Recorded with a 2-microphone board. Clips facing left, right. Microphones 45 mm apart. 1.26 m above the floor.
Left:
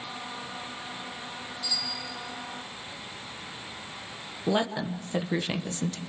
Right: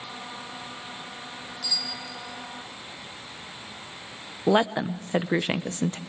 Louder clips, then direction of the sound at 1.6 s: Right 2 dB; 60° right (ahead or behind).